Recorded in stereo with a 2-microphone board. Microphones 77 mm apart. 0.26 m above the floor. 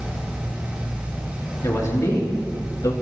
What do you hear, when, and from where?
1.6 s a man speaking: 45° left (ahead or behind), 4 m; by 2.9 s 55° left (ahead or behind), 4 m